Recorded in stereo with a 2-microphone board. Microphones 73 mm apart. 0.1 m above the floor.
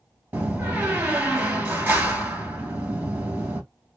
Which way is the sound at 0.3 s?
25° right (ahead or behind).